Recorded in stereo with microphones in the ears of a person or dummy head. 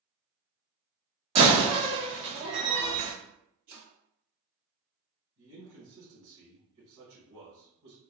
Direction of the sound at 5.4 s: 75° right (ahead or behind).